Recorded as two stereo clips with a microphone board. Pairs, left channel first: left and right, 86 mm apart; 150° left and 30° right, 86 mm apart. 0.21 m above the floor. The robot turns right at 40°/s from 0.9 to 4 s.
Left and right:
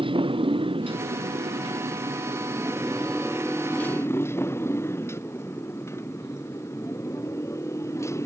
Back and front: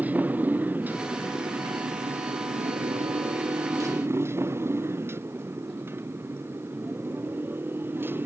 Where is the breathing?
I don't hear breathing.